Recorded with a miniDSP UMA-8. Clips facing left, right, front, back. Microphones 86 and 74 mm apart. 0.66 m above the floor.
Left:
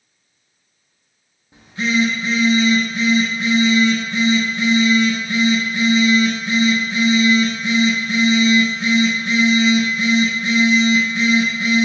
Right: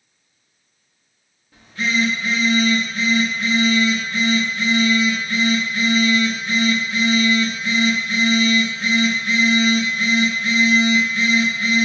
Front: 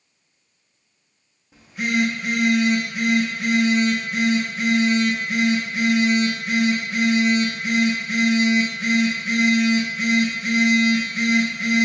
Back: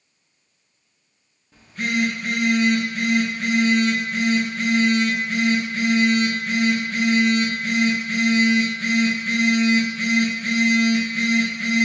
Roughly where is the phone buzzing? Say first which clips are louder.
Left 3 dB, front 1 dB; ahead left.